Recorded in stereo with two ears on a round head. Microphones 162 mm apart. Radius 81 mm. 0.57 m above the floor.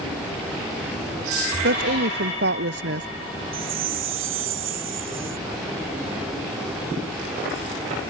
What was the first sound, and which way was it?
A woman speaking, 65° right (ahead or behind).